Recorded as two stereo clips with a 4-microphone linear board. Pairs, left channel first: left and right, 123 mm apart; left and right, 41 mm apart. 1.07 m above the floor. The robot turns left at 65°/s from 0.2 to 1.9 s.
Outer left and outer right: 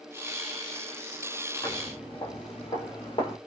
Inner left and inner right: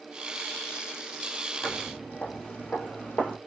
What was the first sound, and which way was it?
Footsteps, 40° left (ahead or behind).